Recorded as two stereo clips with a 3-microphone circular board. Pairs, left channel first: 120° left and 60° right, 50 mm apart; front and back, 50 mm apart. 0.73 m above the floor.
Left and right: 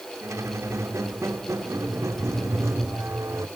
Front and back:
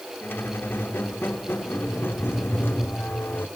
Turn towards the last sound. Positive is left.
turn(degrees=-45)